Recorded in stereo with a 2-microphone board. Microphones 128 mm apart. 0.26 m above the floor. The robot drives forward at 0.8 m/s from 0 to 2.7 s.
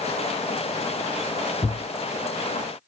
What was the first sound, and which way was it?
A thud, 35° left (ahead or behind).